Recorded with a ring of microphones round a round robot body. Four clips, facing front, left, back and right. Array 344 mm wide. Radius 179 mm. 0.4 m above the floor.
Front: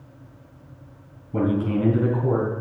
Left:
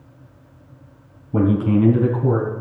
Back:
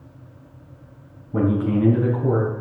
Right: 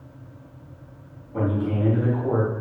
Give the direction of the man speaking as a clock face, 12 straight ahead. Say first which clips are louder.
Left 7 dB, back 2 dB; 9 o'clock.